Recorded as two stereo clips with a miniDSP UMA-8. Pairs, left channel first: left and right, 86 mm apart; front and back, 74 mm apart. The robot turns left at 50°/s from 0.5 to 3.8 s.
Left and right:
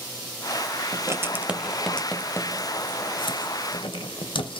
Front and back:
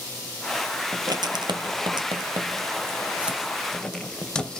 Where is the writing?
135° right, 0.6 m; by 4.6 s 80° left, 0.6 m.